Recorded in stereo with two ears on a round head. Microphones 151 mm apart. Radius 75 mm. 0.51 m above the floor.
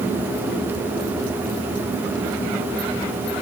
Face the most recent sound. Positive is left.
No sound to turn to.